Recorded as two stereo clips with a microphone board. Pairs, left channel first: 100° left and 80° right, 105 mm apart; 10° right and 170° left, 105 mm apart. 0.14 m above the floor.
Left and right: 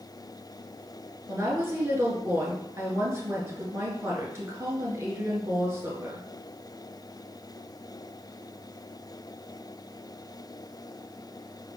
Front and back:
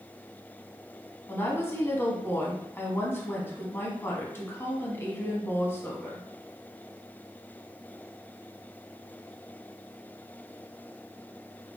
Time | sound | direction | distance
1.3 | a woman speaking | 55° right | 1.2 m